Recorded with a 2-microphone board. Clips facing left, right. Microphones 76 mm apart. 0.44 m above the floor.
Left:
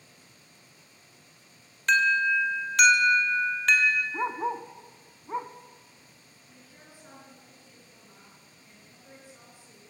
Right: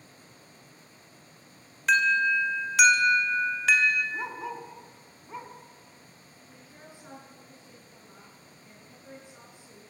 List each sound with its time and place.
1.9 s an alarm: 5° right (ahead or behind), 2.5 m
4.1 s a dog barking: 35° left (ahead or behind), 1.2 m
6.5 s a woman speaking: 20° right (ahead or behind), 6.5 m